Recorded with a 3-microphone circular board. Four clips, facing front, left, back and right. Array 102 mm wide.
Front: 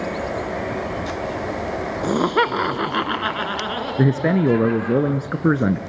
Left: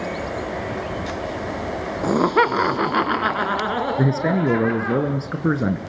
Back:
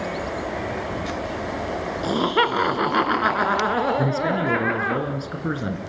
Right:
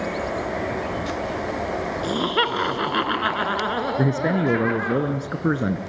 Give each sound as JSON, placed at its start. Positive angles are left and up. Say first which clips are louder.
{"t": 2.0, "sound": "laughter", "louder": "left 7 dB, front 2 dB", "azimuth_deg": 60, "distance_m": 1.6}
{"t": 4.0, "sound": "a man speaking", "louder": "left 1 dB, front 4 dB", "azimuth_deg": 5, "distance_m": 1.2}